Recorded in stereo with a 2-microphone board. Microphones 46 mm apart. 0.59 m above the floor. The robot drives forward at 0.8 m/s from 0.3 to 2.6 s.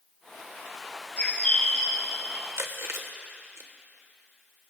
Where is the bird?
35° left (ahead or behind), 1.0 m; by 2.1 s 20° left (ahead or behind), 1.7 m.